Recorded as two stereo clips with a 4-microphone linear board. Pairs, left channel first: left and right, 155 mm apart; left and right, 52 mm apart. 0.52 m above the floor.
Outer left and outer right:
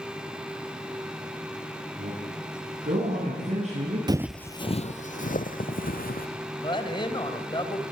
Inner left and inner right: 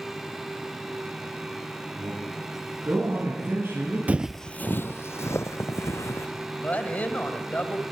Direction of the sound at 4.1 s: 30° right (ahead or behind).